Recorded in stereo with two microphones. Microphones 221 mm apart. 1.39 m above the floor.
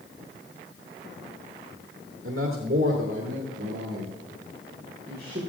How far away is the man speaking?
About 1.8 m.